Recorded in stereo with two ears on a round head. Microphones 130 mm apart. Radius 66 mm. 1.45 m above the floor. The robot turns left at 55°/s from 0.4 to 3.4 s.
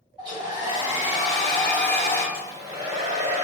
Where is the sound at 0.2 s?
120° right, 1.7 m; by 2.2 s 140° left, 1.7 m.